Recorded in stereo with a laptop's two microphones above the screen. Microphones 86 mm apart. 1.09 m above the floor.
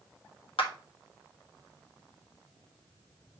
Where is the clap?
85° left, 1.4 m.